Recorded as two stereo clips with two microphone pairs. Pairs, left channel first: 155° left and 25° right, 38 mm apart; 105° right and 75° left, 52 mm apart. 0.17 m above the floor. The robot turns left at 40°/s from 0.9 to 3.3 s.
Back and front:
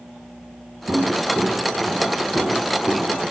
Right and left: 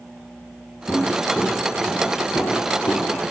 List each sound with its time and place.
0.9 s footsteps: 25° right, 2.5 m; by 3.3 s 130° right, 3.5 m